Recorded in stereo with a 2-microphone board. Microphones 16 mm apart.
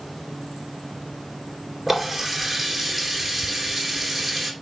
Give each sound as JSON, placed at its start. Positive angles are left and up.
{"t": 1.9, "sound": "a running tap", "side_deg": -10, "distance_m": 3.5}